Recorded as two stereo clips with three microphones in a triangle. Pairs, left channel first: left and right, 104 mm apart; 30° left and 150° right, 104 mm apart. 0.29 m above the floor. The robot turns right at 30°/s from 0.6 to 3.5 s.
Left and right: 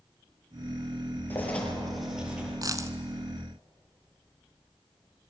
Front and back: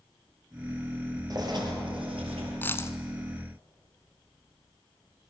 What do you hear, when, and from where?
1.3 s writing: 160° left, 5.5 m; by 2.5 s 165° right, 5.5 m
2.6 s a dropped coin: 40° right, 1.1 m; by 3.0 s 30° right, 1.1 m